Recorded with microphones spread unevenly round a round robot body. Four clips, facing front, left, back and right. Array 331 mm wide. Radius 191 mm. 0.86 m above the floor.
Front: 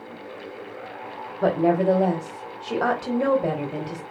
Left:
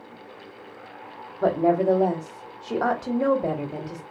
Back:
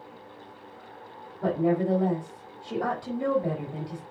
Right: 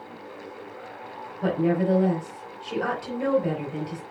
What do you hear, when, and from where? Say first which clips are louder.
1.4 s a woman speaking: left 3 dB, front 5 dB; 25° left, 4 m